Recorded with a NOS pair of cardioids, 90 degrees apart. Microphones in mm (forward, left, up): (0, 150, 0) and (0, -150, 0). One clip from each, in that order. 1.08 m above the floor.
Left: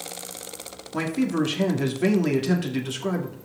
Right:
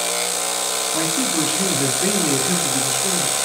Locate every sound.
0.9 s a man speaking: 5° left, 3 m